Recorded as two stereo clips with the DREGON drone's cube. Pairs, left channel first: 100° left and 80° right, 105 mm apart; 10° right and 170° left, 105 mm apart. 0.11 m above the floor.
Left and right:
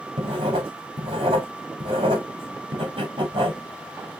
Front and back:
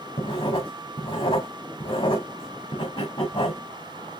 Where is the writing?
40° right, 3.5 m.